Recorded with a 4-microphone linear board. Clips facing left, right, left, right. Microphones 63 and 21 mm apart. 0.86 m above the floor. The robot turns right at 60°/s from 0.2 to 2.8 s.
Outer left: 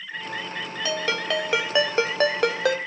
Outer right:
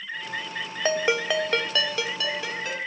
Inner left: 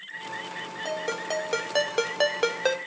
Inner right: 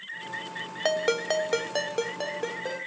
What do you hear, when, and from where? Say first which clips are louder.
0.8 s a ringtone: outer right 3 dB, inner right 6 dB; 35° right, 1.0 m; by 2.8 s 80° left, 1.0 m